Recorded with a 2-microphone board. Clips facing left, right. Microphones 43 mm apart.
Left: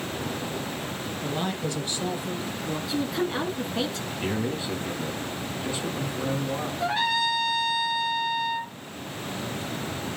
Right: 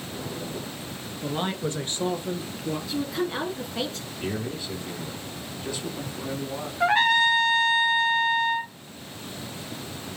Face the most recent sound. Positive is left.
turn(degrees=-45)  # may be behind; listen again after turning